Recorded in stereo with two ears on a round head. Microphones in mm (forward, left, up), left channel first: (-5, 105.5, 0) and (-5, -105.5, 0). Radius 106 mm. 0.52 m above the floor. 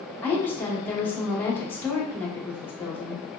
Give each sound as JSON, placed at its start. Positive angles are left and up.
{"t": 0.2, "sound": "a woman speaking", "side_deg": 10, "distance_m": 0.9}